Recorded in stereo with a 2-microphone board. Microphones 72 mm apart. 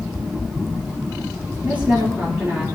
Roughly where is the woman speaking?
Right.